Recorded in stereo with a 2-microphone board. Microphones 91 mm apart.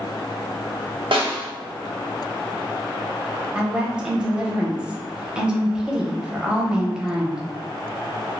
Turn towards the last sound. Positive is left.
turn(degrees=-10)  # may be behind; listen again after turning